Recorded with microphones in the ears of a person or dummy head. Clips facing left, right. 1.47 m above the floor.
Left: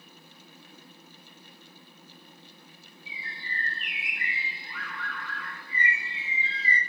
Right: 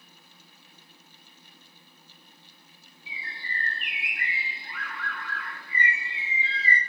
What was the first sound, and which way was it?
A bird, 45° right (ahead or behind).